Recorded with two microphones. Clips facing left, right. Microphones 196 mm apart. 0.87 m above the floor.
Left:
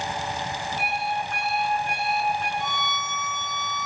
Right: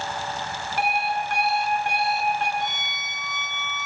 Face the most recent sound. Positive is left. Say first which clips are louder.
# left 2 dB
turn(degrees=75)  # may be behind; listen again after turning